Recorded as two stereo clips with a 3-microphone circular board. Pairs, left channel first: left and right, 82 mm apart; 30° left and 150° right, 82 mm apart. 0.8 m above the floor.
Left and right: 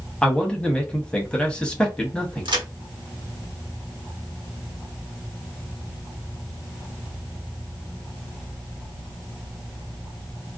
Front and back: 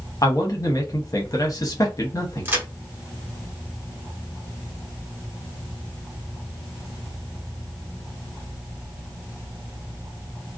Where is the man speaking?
15° left, 0.9 m.